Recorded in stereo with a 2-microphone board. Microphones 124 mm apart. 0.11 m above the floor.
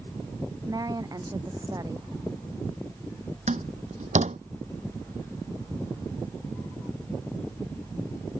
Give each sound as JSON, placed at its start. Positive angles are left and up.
{"t": 0.7, "sound": "a woman speaking", "side_deg": -30}
{"t": 3.5, "sound": "a door slam", "side_deg": -75}